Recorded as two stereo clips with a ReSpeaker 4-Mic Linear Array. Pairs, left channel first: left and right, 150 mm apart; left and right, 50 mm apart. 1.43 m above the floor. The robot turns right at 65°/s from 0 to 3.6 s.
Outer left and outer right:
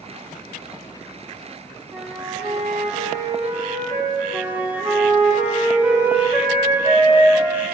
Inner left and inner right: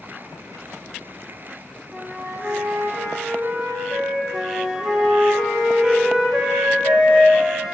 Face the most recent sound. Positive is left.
turn(degrees=-10)  # may be behind; listen again after turning